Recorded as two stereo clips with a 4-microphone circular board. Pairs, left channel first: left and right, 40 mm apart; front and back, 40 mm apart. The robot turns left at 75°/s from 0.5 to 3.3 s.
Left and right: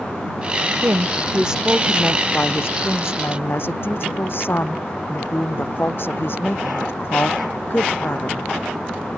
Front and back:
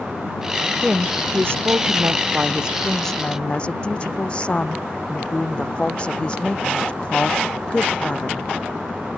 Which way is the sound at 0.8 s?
115° right.